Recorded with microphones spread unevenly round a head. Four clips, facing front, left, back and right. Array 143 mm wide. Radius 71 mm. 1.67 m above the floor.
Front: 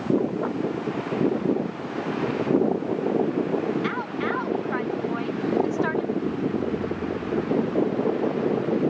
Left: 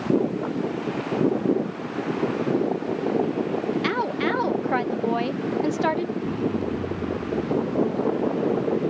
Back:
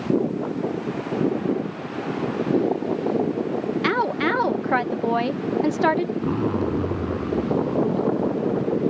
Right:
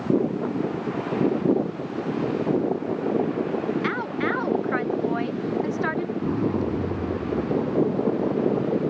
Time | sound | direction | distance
3.8 | a woman speaking | 160° left | ?
6.2 | a zipper | 160° right | ?